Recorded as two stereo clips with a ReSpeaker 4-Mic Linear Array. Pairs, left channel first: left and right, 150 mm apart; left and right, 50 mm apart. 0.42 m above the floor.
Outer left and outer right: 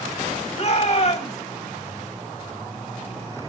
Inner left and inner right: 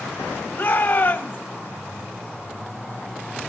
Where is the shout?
50° left (ahead or behind), 2.5 m.